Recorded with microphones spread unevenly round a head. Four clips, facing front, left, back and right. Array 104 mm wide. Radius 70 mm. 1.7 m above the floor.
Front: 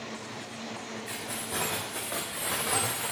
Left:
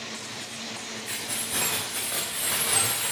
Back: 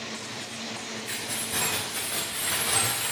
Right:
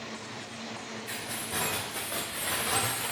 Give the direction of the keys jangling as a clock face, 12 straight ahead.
1 o'clock.